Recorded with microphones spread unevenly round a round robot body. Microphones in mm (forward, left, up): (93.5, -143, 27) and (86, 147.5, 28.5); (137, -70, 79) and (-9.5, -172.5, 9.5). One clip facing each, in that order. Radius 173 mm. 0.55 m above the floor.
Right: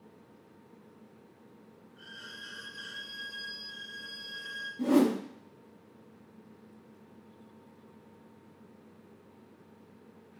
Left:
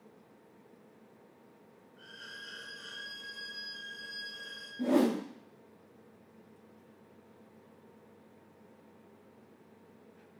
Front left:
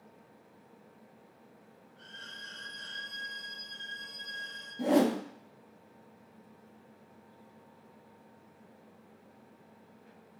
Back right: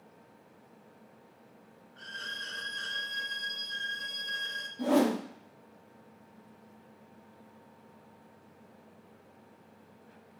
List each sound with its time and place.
2.0 s a violin: 155° right, 0.5 m
4.8 s a whoosh: 65° right, 0.7 m